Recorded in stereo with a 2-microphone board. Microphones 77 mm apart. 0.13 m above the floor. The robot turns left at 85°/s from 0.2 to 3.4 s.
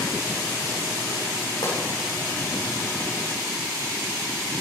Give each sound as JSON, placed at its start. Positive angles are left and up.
{"t": 1.6, "sound": "a pop", "side_deg": 75, "distance_m": 8.5}